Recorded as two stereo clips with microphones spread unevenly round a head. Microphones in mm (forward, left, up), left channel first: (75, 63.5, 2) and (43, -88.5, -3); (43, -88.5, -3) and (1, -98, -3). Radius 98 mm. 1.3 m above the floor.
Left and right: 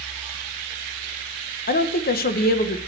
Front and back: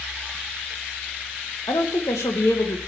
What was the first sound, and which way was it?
A woman speaking, 55° left.